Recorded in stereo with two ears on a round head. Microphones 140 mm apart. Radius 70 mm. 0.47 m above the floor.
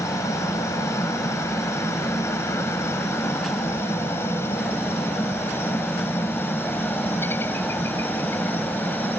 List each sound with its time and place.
0.0 s a helicopter: 20° left (ahead or behind); by 9.2 s 10° left (ahead or behind)